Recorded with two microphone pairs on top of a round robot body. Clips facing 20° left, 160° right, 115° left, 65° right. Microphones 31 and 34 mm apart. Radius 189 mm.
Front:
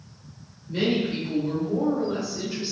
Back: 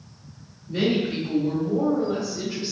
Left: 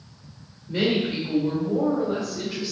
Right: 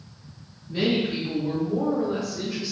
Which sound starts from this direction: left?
A woman speaking, at 0.7 s.